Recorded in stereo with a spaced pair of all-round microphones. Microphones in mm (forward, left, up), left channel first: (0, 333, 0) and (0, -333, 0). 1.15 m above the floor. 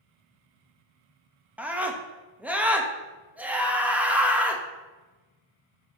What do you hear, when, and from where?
1.6 s a scream: centre (ahead or behind), 1.2 m